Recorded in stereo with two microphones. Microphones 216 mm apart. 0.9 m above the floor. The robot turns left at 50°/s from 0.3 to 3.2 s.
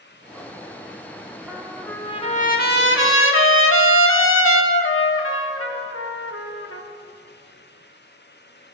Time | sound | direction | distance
1.5 | a trumpet | 170° right | 1.4 m